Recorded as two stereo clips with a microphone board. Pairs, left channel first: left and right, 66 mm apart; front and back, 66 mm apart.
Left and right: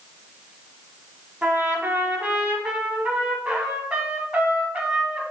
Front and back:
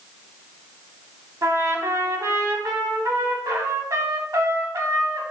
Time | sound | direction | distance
1.4 | a trumpet | 160° right | 0.5 m